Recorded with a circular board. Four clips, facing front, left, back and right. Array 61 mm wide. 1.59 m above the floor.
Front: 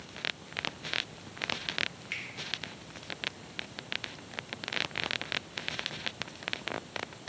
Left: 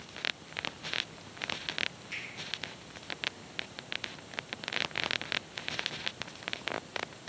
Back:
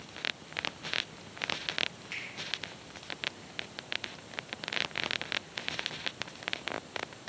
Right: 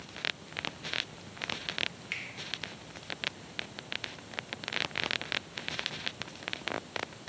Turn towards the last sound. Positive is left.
turn(degrees=-70)